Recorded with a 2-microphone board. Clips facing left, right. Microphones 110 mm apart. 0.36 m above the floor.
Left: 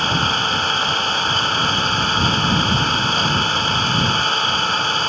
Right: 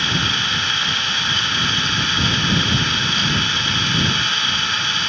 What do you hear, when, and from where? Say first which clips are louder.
0.0 s an engine running: left 4 dB; 40° left (ahead or behind)